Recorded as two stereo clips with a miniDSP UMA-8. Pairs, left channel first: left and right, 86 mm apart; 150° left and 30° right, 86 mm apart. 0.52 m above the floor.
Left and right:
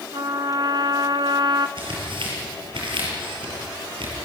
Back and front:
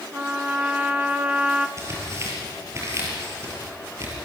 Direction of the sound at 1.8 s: 85° right.